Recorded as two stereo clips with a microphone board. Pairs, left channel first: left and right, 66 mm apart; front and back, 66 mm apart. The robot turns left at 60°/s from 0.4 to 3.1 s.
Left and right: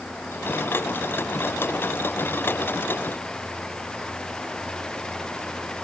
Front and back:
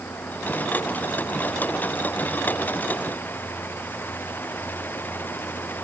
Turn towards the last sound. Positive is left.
No sound to turn to.